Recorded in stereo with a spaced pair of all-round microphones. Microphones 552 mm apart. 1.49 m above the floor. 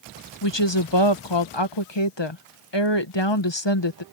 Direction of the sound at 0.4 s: 50° left (ahead or behind).